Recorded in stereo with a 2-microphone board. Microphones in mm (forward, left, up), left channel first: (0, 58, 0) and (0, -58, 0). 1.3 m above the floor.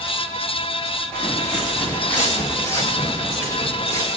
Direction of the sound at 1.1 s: 5° left (ahead or behind).